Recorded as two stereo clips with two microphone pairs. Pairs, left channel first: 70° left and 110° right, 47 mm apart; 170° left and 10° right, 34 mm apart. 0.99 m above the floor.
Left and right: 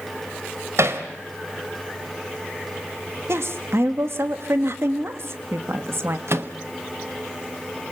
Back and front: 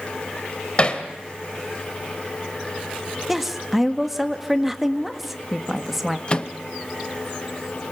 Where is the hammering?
130° right, 2 m.